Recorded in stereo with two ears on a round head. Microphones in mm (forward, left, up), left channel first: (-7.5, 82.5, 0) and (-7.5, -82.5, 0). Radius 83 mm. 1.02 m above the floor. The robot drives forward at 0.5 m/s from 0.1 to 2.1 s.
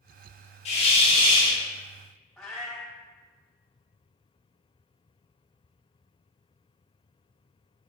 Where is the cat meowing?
5° left (ahead or behind), 0.6 m.